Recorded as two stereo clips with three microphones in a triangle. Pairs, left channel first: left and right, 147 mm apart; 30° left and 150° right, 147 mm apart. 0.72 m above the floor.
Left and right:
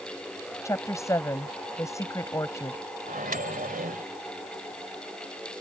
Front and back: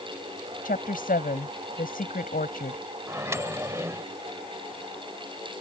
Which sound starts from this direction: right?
A microwave, at 3.1 s.